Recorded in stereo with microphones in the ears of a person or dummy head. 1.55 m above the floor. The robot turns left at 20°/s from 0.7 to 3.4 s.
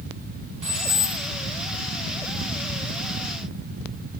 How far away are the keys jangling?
About 1.5 m.